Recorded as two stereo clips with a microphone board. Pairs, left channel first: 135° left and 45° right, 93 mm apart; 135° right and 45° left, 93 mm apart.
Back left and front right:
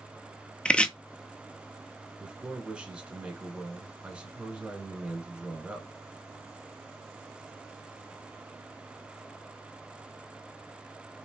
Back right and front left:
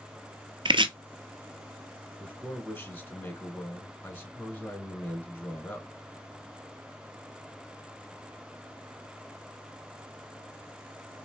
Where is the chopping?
60° left, 0.5 m.